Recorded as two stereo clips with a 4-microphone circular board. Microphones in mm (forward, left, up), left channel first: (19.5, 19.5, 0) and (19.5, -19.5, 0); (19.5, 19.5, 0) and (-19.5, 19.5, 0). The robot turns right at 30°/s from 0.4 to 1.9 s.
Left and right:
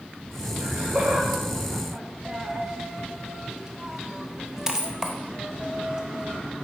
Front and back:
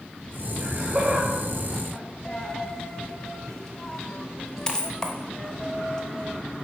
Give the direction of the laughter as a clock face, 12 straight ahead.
5 o'clock.